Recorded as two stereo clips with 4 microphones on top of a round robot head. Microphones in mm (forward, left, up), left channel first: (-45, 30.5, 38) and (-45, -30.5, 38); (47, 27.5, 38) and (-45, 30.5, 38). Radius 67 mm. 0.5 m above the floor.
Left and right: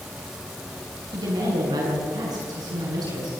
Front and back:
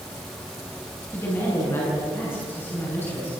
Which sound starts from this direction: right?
A woman speaking, at 1.1 s.